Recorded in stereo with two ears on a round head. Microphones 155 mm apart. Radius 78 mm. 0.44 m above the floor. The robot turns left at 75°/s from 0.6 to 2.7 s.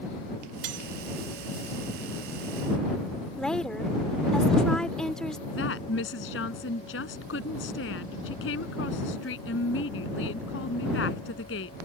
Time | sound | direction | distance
0.6 | cutlery clinking | 65° right (ahead or behind) | ?
3.4 | a woman speaking | 5° left (ahead or behind) | ?
5.5 | a woman speaking | 80° left | ?